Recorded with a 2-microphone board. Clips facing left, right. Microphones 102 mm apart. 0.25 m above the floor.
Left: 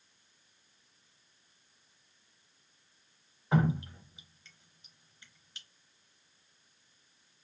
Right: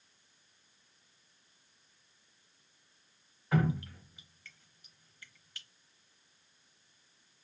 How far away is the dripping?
About 0.7 m.